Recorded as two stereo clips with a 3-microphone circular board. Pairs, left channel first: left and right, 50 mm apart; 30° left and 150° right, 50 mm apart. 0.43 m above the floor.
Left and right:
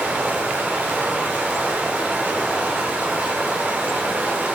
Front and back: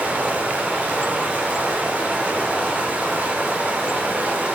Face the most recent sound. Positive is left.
turn(degrees=-115)